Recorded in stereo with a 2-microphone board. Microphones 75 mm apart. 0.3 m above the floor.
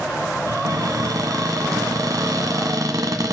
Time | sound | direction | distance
0.5 | a cupboard door | 60° right (ahead or behind) | 0.9 m